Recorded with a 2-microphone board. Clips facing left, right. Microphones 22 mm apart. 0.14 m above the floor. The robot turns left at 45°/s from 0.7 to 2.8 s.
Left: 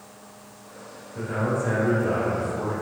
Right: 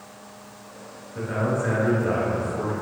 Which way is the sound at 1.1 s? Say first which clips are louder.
Right 1 dB; 25° right (ahead or behind).